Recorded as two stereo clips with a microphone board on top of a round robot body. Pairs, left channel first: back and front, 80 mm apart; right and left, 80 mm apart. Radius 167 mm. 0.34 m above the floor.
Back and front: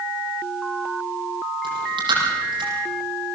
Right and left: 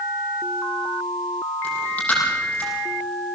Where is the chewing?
15° right, 7.5 m.